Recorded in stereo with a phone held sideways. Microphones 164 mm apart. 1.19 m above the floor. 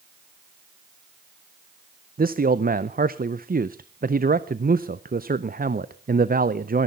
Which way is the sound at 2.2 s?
60° right (ahead or behind).